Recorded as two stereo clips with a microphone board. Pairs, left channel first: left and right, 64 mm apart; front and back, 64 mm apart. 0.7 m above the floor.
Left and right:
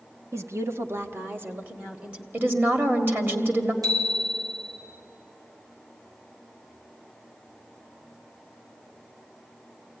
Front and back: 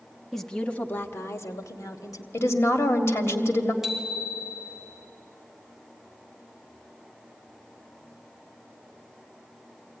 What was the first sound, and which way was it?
A woman speaking, 90° right.